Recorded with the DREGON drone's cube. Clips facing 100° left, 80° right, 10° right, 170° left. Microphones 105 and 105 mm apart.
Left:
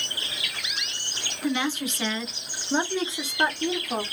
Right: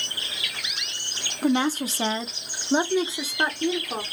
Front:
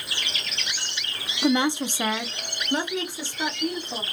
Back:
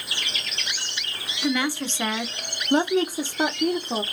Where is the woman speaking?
55° right, 0.9 m; by 4.0 s 175° right, 1.4 m.